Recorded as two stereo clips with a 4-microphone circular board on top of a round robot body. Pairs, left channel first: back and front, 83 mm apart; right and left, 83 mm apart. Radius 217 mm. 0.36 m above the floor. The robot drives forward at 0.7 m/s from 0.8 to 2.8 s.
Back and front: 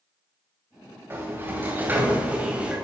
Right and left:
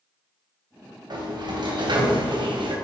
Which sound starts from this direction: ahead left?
A sliding door, at 1.1 s.